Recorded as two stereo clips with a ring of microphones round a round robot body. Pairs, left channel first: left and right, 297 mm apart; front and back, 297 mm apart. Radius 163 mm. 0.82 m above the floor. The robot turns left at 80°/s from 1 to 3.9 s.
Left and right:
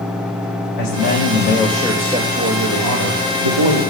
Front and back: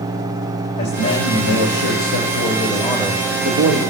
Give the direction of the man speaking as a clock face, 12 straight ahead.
10 o'clock.